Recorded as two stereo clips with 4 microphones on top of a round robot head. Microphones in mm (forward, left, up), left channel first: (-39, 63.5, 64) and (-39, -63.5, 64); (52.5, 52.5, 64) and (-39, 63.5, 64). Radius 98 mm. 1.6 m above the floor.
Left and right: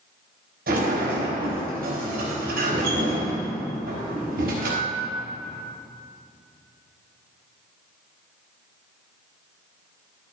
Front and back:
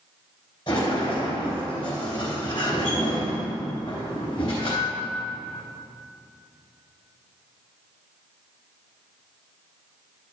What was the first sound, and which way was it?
A sliding door, 65° right.